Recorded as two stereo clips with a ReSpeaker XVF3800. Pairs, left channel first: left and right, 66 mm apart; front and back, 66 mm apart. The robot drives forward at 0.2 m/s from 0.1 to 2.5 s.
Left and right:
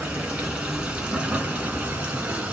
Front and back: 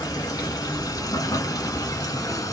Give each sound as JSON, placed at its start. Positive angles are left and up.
{"t": 0.0, "sound": "running water", "azimuth_deg": -20, "distance_m": 1.6}